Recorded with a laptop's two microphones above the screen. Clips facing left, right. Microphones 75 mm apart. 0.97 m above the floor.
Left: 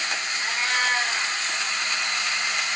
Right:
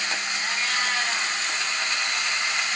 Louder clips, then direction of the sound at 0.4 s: Left 4 dB; 40° left (ahead or behind).